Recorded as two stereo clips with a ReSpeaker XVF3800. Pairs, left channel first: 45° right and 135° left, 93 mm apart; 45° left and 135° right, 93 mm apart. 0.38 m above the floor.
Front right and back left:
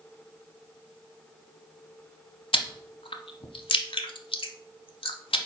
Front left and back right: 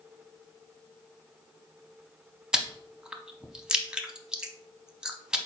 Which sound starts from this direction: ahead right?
Chewing, at 2.5 s.